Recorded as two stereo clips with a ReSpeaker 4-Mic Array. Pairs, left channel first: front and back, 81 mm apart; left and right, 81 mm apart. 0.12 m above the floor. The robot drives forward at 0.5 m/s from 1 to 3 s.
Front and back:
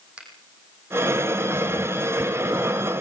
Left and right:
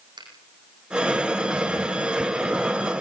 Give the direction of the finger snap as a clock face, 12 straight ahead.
3 o'clock.